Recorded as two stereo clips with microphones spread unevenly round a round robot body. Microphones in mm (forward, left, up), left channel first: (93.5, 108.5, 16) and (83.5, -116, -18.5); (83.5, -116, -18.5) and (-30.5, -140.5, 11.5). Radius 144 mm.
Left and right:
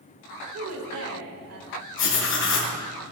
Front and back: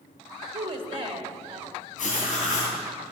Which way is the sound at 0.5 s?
120° right.